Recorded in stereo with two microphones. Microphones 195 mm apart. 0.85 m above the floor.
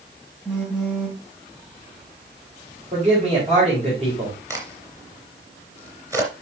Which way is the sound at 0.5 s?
5° right (ahead or behind).